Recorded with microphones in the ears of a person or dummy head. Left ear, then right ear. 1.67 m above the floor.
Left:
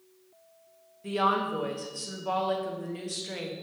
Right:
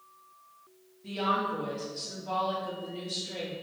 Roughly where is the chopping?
I don't hear chopping.